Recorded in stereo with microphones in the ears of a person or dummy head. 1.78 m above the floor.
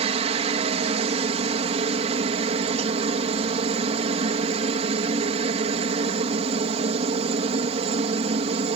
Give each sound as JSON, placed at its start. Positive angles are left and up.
{"t": 0.0, "sound": "a helicopter", "side_deg": -35}